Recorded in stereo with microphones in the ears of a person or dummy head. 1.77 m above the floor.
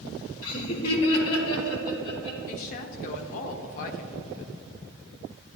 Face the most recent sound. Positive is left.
turn(degrees=45)  # may be behind; listen again after turning